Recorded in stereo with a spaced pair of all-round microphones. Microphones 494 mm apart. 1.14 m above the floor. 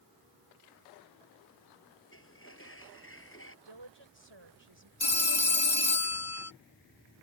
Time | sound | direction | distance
2.1 | a sliding door | 25° left (ahead or behind) | ?
3.6 | a woman speaking | 60° right (ahead or behind) | ?
5.0 | a phone ringing | 80° left | ?